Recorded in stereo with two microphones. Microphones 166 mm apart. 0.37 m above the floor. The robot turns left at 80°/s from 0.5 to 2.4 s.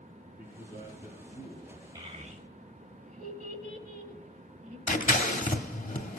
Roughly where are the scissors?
Left.